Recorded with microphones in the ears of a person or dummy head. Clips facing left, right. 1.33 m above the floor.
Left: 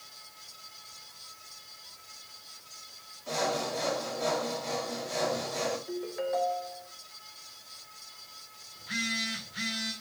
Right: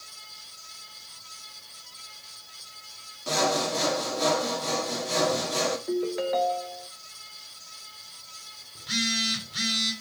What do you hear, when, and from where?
3.3 s sawing: 75° right (ahead or behind), 1.9 m
5.9 s a ringtone: 50° right (ahead or behind), 0.8 m
8.8 s a phone buzzing: 55° right (ahead or behind), 1.9 m